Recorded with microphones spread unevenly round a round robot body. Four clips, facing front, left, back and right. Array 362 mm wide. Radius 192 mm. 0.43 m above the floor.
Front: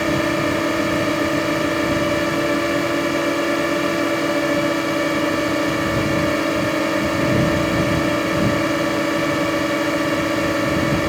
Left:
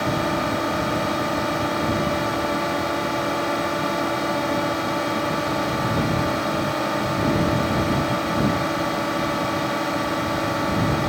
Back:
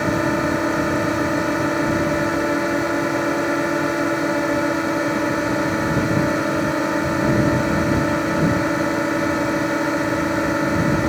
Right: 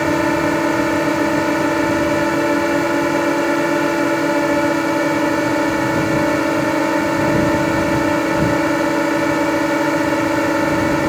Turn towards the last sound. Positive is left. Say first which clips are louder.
# right 7 dB, even
turn(degrees=-85)